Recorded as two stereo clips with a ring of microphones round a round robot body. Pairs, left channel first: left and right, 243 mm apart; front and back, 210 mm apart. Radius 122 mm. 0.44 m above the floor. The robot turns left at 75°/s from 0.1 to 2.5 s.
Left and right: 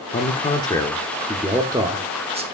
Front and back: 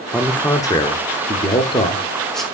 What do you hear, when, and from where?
0.1 s a man speaking: 85° left, 0.9 m; by 2.4 s 90° right, 0.9 m